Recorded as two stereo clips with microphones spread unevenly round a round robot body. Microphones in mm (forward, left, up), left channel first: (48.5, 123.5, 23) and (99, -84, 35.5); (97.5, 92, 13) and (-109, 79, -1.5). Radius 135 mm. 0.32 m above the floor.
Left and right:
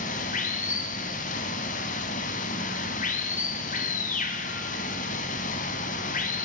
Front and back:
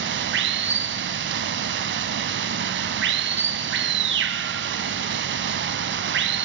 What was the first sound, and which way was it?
Running water, 160° left.